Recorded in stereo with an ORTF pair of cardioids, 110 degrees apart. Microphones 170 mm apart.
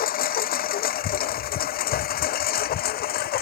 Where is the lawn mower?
60° left; by 3.4 s 65° left.